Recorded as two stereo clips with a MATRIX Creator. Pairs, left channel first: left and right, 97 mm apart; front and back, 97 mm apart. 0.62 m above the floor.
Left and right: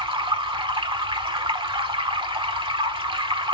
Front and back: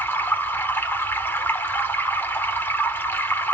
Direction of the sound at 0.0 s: 65° right.